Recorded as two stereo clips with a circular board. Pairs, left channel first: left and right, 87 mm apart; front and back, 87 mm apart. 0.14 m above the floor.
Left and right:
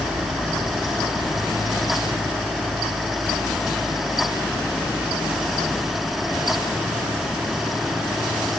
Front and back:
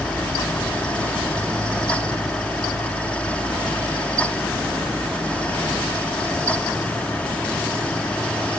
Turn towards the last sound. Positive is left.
No sound to turn to.